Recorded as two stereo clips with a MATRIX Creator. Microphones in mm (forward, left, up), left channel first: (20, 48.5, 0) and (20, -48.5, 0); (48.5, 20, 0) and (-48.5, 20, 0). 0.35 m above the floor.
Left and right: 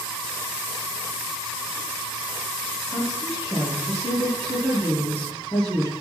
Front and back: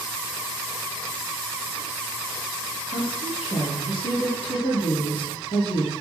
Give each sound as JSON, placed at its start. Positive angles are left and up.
{"t": 2.9, "sound": "a woman speaking", "azimuth_deg": -5, "distance_m": 6.5}